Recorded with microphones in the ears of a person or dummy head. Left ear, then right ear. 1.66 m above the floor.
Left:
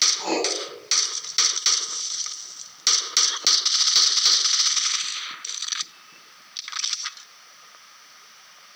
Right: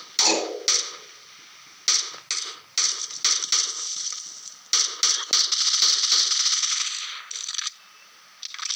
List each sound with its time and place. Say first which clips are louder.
0.2 s writing: right 4 dB; 65° right (ahead or behind), 4.5 m